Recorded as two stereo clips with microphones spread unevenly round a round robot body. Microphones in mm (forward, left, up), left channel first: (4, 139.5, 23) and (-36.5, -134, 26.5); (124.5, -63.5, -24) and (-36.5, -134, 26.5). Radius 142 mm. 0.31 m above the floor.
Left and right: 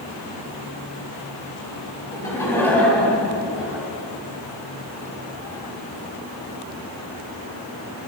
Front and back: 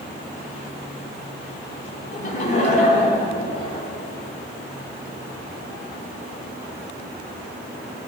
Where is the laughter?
5° left, 3 m; by 3.9 s 15° right, 2.5 m.